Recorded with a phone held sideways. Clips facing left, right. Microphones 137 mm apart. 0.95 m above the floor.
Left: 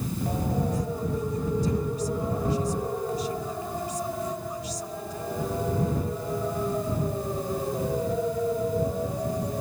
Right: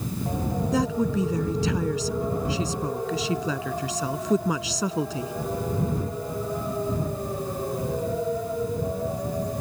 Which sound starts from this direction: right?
A woman speaking, at 0.7 s.